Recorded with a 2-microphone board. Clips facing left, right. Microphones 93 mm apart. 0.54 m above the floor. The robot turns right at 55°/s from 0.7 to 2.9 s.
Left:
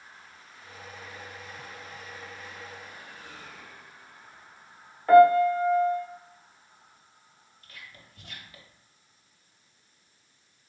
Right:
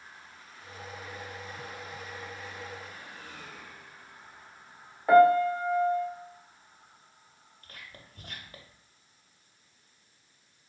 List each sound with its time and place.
5.1 s a piano: 10° right (ahead or behind), 0.8 m
7.6 s whispering: 45° right (ahead or behind), 0.8 m